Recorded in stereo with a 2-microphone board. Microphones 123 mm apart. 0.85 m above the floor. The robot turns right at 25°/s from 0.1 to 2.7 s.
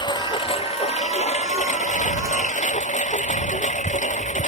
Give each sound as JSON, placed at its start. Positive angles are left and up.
{"t": 0.0, "sound": "a lawn mower", "azimuth_deg": 40}